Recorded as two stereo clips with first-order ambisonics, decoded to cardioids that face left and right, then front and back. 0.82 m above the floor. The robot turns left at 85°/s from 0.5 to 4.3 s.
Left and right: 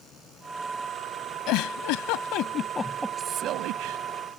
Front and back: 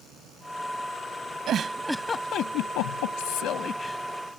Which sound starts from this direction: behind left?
A giggle, at 1.5 s.